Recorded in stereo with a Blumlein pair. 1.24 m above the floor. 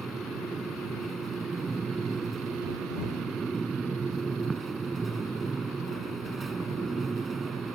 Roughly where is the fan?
Ahead.